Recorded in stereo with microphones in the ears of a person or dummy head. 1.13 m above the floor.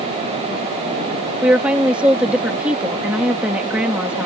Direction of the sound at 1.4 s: 5° right (ahead or behind).